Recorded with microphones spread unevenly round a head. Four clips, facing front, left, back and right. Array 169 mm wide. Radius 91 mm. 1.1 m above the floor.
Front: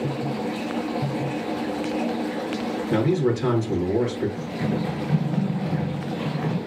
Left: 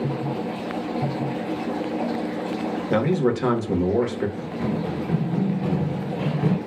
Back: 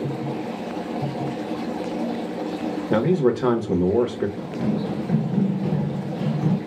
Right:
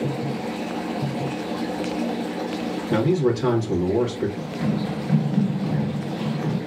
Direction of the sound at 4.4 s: 160° left.